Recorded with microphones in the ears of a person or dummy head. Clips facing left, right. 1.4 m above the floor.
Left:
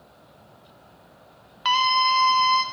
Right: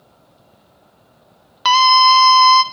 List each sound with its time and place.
1.6 s a scream: 65° right (ahead or behind), 0.9 m